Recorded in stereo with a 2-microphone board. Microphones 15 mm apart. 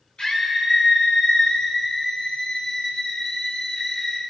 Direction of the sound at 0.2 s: 70° left (ahead or behind).